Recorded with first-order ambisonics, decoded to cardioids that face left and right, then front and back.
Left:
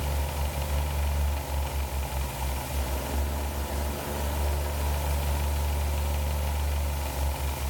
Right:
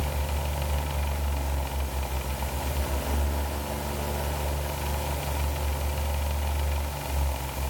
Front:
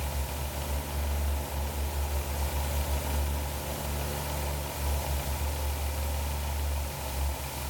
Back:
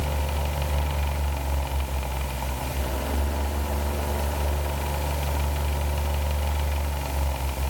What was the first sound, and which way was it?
Only background noise.